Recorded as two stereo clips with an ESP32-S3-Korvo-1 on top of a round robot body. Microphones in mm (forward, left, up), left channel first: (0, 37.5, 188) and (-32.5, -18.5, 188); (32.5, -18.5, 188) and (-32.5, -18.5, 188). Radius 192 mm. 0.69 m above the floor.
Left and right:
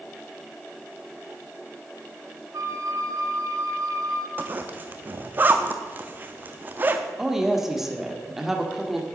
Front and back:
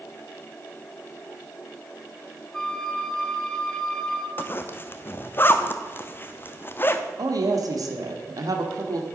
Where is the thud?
I don't hear a thud.